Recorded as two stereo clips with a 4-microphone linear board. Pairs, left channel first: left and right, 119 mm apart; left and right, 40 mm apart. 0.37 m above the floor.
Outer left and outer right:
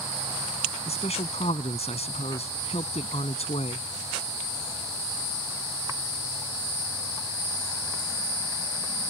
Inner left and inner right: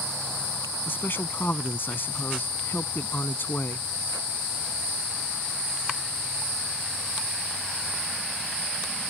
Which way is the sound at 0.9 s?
60° left (ahead or behind).